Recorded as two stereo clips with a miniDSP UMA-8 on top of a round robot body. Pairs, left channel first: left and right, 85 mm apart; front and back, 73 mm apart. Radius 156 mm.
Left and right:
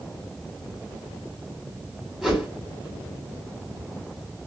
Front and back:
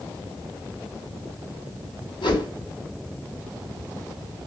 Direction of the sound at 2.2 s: Straight ahead.